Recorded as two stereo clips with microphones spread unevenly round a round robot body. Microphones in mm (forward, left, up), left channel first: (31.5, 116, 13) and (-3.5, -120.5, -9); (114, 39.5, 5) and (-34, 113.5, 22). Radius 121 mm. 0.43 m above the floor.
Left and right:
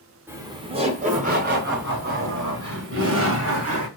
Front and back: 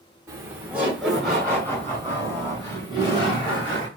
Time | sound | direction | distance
0.3 | laughter | 150° right | 1.0 m